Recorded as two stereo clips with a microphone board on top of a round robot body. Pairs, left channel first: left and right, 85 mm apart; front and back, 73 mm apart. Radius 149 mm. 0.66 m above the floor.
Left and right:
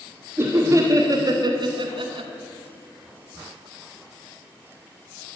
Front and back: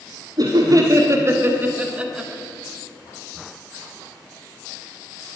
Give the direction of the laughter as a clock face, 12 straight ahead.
5 o'clock.